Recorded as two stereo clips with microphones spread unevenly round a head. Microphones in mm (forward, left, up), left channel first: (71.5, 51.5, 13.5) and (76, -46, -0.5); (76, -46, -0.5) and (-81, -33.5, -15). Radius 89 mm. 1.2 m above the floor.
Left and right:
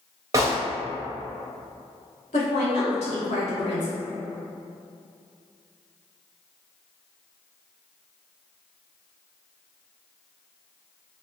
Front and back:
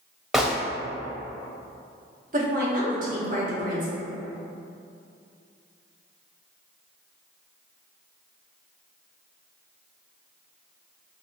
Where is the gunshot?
100° right, 0.6 m.